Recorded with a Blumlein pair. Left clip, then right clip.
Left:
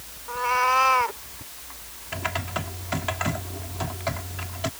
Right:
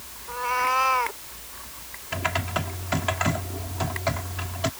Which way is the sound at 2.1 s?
5° right.